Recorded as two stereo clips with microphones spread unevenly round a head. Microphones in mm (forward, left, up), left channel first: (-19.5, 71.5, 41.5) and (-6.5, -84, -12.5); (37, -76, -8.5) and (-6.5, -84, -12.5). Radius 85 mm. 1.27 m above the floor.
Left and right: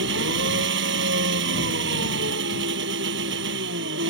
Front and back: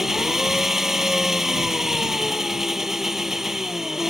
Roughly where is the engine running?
Right.